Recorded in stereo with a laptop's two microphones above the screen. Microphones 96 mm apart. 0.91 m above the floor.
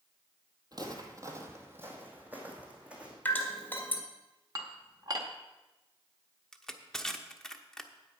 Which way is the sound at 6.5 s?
5° left (ahead or behind).